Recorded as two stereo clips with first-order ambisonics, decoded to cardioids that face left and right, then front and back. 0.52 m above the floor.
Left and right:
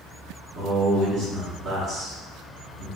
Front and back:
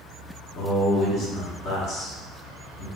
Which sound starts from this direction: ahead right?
A man speaking, at 0.6 s.